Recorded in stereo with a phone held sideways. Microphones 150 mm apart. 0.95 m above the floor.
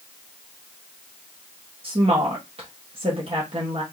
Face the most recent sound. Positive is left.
turn(degrees=-40)  # may be behind; listen again after turning